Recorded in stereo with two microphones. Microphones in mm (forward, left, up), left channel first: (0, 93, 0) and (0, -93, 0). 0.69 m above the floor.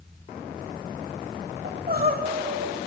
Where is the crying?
50° right (ahead or behind), 1.0 m.